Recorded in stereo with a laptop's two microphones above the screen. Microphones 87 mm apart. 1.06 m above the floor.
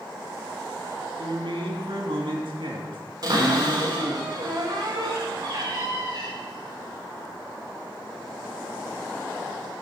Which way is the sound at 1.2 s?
70° right (ahead or behind).